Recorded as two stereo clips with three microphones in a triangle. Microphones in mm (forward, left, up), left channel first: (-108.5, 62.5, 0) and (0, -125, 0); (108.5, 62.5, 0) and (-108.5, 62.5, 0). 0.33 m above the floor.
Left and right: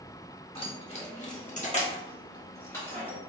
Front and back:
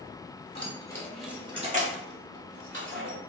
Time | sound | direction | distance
0.6 | keys jangling | 60° left | 1.0 m